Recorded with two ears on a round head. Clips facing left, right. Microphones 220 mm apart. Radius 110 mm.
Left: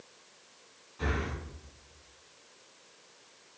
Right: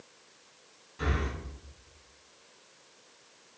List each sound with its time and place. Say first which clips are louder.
1.0 s breathing: right 1 dB; 35° right (ahead or behind), 1.7 m